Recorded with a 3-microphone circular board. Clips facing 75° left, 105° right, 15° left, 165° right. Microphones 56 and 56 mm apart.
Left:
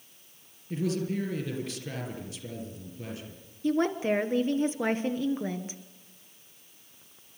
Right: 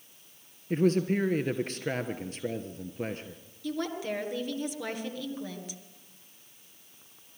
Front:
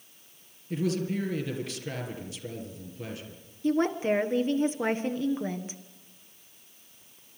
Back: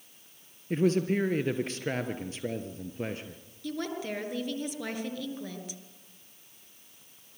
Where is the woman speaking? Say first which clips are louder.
Left 7 dB, front 9 dB; 45° left, 1.5 m.